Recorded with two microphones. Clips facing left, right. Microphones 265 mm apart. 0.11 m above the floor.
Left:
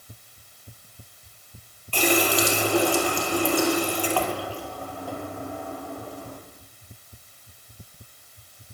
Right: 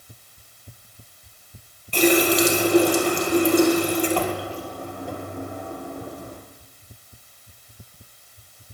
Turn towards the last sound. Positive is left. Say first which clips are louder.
# right 5 dB
turn(degrees=-20)  # may be behind; listen again after turning